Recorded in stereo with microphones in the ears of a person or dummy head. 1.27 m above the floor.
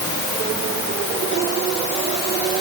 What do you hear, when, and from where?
Only background noise.